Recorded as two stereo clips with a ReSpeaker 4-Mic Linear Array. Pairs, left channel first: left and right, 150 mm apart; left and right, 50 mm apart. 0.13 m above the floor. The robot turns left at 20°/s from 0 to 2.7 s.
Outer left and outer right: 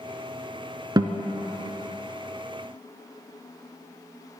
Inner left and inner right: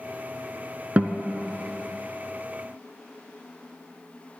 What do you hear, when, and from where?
1.0 s a guitar: 30° right (ahead or behind), 0.9 m; by 1.2 s 25° right (ahead or behind), 0.9 m